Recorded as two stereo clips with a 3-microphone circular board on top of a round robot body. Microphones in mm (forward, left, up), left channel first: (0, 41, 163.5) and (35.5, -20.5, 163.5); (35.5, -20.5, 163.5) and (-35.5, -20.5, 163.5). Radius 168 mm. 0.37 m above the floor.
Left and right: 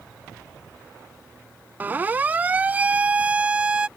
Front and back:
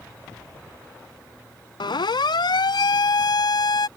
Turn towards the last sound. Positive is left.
turn(degrees=15)